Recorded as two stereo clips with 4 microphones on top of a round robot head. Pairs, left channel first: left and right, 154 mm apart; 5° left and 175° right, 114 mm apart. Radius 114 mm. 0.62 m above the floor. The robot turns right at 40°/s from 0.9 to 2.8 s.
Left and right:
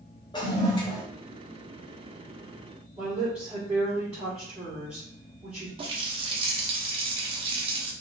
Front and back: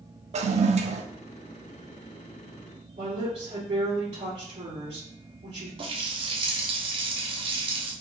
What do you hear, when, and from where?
0.3 s a toilet flushing: 160° left, 0.5 m; by 1.0 s 165° left, 0.5 m
3.0 s a woman speaking: 175° right, 2 m
5.8 s a running tap: 140° right, 0.7 m